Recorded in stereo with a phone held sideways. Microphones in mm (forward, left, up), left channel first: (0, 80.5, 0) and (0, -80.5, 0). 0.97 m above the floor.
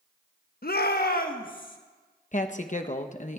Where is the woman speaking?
50° left (ahead or behind), 0.8 m.